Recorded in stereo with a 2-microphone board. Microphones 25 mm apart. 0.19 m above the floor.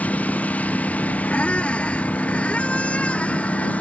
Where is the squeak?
60° left (ahead or behind).